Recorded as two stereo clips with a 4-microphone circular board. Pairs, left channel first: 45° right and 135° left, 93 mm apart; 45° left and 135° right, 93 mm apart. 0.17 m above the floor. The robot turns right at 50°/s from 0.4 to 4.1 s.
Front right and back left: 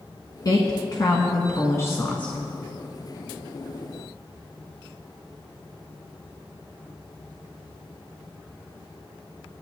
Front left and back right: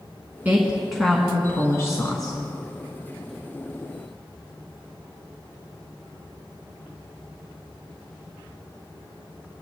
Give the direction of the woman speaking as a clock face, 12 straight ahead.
2 o'clock.